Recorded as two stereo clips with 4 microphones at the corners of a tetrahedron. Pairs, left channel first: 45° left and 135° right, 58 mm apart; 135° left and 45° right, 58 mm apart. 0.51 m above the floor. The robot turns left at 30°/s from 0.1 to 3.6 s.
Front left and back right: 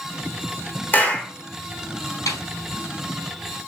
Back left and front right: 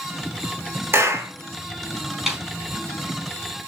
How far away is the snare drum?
About 4 m.